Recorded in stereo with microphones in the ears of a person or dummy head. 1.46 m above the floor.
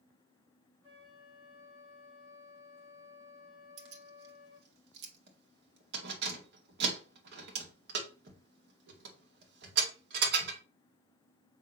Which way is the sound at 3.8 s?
65° right (ahead or behind).